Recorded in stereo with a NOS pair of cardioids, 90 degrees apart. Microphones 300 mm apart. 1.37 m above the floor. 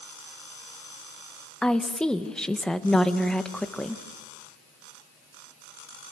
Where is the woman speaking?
5° left, 1.6 m.